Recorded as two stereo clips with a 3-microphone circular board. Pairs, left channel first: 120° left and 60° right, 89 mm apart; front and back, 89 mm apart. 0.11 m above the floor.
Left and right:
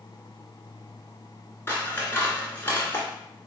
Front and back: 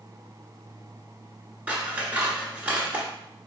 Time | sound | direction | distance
1.7 | scissors | 135° left | 0.9 m